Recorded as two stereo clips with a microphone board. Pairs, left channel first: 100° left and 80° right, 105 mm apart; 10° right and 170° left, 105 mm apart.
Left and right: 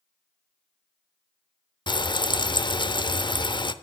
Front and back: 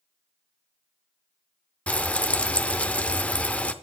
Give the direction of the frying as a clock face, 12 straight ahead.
10 o'clock.